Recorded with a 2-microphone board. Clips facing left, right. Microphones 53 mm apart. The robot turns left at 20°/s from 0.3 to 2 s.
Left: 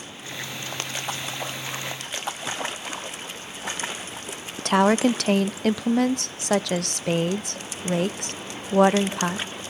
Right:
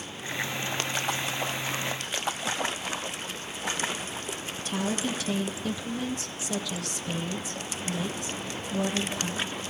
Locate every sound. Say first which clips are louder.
4.6 s a woman speaking: left 12 dB; 60° left (ahead or behind), 0.6 m